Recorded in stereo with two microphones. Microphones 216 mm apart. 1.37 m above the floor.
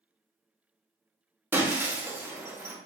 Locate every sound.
1.5 s breaking glass: 10° right (ahead or behind), 1.0 m